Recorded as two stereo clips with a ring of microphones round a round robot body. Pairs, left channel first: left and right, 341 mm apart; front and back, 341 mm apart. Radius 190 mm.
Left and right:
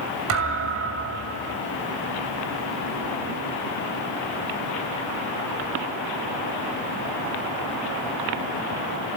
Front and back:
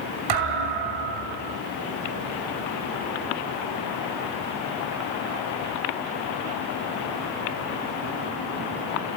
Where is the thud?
145° right, 2.5 m.